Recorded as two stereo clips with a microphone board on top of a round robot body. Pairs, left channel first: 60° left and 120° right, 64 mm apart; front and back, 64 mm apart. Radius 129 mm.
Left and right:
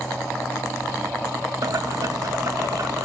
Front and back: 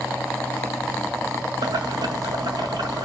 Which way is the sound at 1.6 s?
160° right.